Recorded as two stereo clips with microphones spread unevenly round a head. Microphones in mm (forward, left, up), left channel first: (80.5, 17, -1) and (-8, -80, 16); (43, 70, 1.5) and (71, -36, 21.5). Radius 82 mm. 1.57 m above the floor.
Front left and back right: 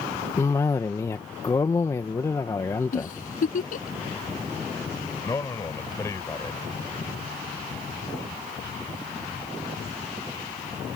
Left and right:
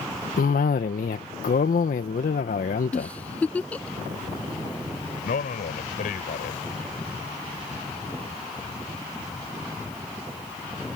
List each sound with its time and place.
0.4 s a cough: 125° left
2.9 s a giggle: 25° left
5.2 s a man speaking: 125° left